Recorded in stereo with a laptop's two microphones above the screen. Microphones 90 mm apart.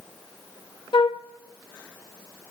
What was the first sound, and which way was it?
A flute, 65° left (ahead or behind).